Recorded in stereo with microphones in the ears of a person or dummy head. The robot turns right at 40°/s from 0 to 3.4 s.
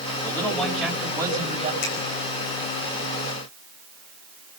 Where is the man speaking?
155° left, 5.5 m; by 1.7 s 145° right, 5.5 m.